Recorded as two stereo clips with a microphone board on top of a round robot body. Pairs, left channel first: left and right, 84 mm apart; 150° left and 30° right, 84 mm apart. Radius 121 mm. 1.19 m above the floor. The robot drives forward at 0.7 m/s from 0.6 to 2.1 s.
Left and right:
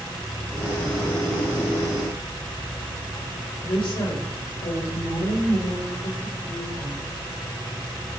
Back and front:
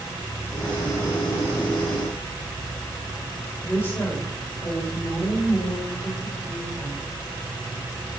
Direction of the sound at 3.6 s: 85° left.